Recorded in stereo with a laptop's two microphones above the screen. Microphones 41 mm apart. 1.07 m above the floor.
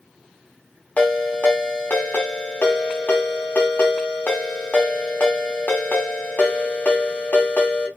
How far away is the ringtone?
About 0.7 m.